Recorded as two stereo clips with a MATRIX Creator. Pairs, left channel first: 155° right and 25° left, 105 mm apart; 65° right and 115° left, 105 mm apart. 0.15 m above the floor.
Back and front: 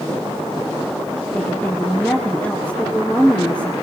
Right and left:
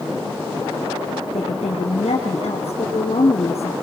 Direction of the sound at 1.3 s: 75° right.